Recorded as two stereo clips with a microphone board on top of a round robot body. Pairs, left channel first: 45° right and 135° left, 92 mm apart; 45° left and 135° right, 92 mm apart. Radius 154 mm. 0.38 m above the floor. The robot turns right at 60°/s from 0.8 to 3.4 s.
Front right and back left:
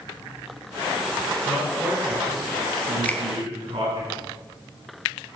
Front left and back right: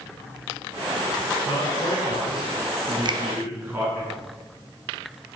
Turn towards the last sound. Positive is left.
turn(degrees=-100)